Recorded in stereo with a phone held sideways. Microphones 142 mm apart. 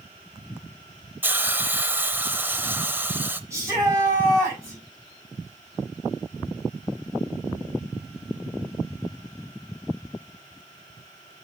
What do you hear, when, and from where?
1.2 s a hiss: 15° right (ahead or behind), 0.7 m
3.5 s a shout: 15° right (ahead or behind), 5 m